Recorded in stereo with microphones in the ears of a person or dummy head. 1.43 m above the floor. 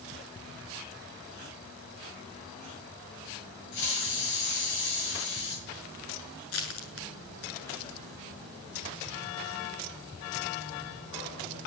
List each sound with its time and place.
3.7 s a hiss: 65° left (ahead or behind), 6.5 m
6.5 s crushing: 80° left, 7.5 m